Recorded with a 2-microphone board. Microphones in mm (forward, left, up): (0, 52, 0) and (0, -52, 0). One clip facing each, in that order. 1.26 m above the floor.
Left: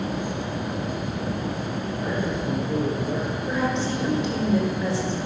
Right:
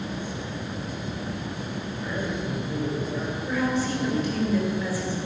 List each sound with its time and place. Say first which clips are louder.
2.0 s a man speaking: left 3 dB; 40° left (ahead or behind), 5.5 m; by 4.5 s 65° left (ahead or behind), 6 m
3.5 s a woman speaking: even; 25° left (ahead or behind), 4.5 m